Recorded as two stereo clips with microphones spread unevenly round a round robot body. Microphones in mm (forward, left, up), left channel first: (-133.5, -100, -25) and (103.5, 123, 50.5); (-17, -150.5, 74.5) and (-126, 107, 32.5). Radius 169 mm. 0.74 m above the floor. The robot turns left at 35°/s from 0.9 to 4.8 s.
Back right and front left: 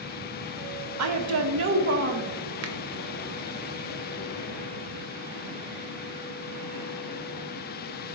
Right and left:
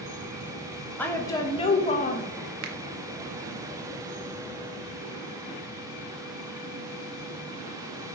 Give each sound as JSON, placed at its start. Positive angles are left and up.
{"t": 1.0, "sound": "a woman speaking", "azimuth_deg": 25, "distance_m": 0.8}
{"t": 2.6, "sound": "a finger snap", "azimuth_deg": 95, "distance_m": 0.8}